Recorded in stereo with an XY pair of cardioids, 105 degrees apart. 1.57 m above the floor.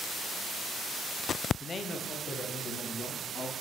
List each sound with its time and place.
1.6 s a man speaking: 30° left, 0.5 m; by 3.5 s 60° left, 3 m